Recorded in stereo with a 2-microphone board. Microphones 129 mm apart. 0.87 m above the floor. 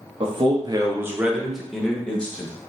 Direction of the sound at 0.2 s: 45° right (ahead or behind).